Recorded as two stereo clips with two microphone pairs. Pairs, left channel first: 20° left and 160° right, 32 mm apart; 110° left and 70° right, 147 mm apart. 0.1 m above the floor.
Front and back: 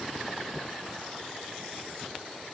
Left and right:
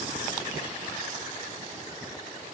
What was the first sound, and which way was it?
Only background noise.